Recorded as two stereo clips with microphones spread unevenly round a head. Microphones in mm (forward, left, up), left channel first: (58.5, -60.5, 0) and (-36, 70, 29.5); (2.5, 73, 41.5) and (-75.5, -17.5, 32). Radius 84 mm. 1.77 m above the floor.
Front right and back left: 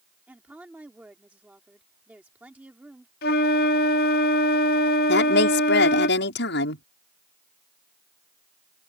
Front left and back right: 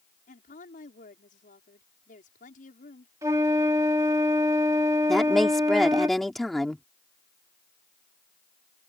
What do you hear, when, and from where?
0.3 s a woman speaking: 45° left
3.2 s a flute: 60° right
5.1 s a woman speaking: 40° right